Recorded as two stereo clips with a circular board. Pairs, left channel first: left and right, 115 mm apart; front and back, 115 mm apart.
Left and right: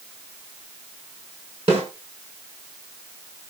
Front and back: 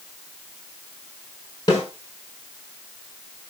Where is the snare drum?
55° right, 6.5 m.